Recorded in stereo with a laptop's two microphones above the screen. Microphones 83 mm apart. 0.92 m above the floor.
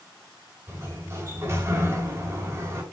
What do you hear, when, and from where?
0.7 s a sliding door: 30° right (ahead or behind), 3 m